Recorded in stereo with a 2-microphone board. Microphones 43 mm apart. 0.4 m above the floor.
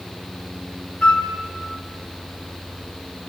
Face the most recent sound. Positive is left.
turn(degrees=25)  # may be behind; listen again after turning